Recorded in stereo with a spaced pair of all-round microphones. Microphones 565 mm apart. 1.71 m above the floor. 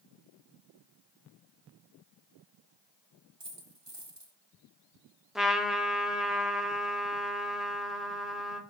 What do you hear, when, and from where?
3.4 s a dropped coin: 45° right (ahead or behind), 1.9 m
5.3 s a trumpet: centre (ahead or behind), 1.1 m